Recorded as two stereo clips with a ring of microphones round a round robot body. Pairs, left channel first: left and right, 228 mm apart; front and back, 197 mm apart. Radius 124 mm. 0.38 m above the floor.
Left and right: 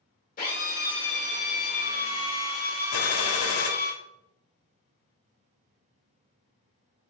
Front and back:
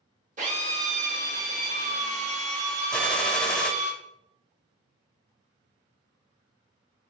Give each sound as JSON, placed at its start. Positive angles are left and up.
{"t": 0.4, "sound": "a drill", "azimuth_deg": 135, "distance_m": 1.8}
{"t": 2.9, "sound": "a gunshot", "azimuth_deg": 85, "distance_m": 0.8}